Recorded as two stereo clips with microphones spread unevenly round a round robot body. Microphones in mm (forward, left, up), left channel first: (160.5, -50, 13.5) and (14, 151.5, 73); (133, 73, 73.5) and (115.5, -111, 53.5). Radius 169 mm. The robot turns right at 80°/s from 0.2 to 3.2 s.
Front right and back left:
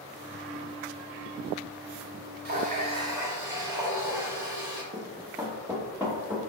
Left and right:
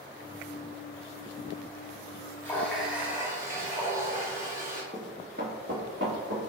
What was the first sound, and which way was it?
A running tap, 160° left.